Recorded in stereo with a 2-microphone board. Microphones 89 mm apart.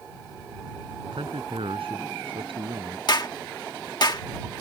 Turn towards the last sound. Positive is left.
turn(degrees=55)  # may be behind; listen again after turning